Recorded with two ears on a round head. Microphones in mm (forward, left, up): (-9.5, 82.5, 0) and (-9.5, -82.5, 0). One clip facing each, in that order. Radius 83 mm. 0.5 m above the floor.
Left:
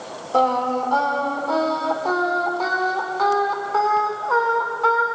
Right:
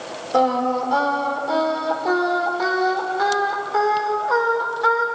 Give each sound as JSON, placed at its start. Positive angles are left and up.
{"t": 0.3, "sound": "singing", "side_deg": -10, "distance_m": 1.7}